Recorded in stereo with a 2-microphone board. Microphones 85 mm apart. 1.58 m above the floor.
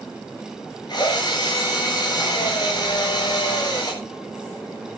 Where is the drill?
55° left (ahead or behind), 10 m.